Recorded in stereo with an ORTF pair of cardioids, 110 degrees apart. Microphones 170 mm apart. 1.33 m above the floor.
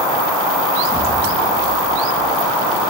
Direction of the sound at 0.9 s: 5° left.